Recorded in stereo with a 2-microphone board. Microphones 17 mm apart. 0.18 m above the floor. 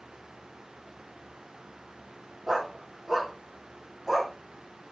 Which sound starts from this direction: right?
A dog barking, at 2.5 s.